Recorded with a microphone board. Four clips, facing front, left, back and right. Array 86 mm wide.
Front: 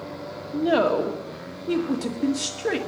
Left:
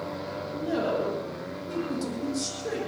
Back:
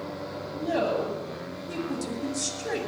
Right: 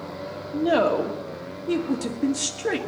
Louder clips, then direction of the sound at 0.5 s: Right 7 dB, front 6 dB; 40° right.